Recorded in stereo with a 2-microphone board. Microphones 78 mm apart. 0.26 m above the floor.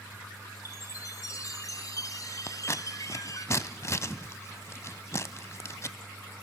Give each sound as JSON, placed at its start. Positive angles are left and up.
{"t": 0.7, "sound": "a chime", "side_deg": 50, "distance_m": 1.4}
{"t": 2.5, "sound": "scissors", "side_deg": 40, "distance_m": 0.6}